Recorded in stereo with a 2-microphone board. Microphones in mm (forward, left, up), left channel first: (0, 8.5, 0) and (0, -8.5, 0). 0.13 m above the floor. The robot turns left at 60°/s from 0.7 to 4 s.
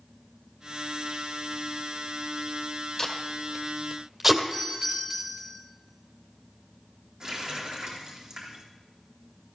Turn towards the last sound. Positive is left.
turn(degrees=-55)  # may be behind; listen again after turning